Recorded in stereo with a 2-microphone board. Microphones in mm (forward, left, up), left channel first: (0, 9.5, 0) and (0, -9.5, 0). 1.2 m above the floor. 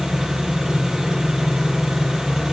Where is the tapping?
No tapping in this recording.